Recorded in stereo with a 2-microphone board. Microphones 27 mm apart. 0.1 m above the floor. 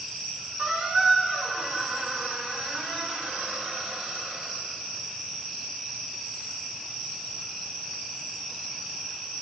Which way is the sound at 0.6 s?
70° right (ahead or behind).